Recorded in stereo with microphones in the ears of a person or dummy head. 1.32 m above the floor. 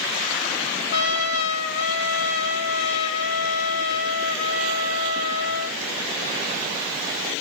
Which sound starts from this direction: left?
A trumpet, at 0.9 s.